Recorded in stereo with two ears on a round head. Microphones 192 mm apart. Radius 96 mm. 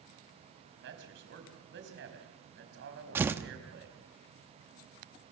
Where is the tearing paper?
10° right (ahead or behind), 0.9 m.